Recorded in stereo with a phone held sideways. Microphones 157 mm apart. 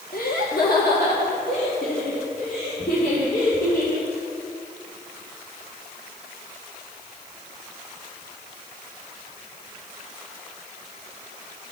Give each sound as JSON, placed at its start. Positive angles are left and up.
{"t": 0.1, "sound": "laughter", "side_deg": 65, "distance_m": 1.0}